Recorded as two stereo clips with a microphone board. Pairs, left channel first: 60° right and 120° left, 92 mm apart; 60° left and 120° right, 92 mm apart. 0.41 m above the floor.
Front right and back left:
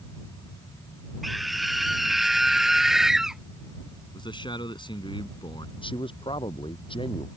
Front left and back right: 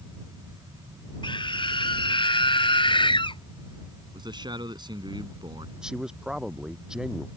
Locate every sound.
1.2 s a scream: 30° left; by 3.4 s 35° left
4.1 s a man speaking: 85° right
5.8 s a man speaking: 35° right